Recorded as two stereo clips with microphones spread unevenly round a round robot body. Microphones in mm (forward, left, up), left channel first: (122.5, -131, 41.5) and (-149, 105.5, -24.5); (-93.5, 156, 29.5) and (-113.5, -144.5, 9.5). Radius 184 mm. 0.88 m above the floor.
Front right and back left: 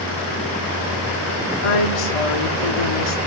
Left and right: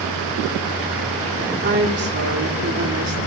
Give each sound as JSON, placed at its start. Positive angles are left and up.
{"t": 1.6, "sound": "a woman speaking", "azimuth_deg": -30, "distance_m": 2.0}